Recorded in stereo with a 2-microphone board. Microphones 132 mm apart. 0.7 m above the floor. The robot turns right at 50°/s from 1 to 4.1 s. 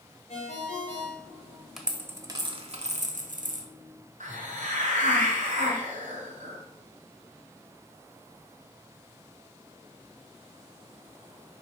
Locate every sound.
0.3 s a ringtone: 65° left, 2 m; by 1.6 s 95° left, 2 m
1.8 s a dropped coin: centre (ahead or behind), 1.0 m; by 3.7 s 75° right (ahead or behind), 1.0 m
4.2 s a hiss: 80° right, 2.5 m